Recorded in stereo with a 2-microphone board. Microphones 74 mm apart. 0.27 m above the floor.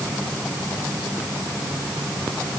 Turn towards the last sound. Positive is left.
No sound to turn to.